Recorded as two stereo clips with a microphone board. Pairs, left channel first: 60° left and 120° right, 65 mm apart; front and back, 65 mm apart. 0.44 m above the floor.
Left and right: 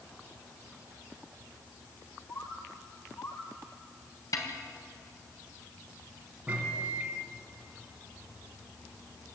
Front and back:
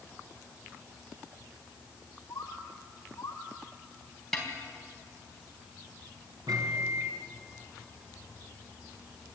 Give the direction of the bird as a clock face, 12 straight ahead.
11 o'clock.